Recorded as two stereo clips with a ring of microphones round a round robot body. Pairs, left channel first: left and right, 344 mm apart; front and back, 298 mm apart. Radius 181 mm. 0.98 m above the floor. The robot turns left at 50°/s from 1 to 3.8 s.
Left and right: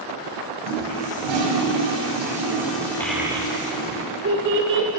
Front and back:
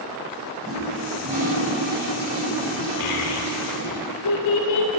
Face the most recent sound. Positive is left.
turn(degrees=-35)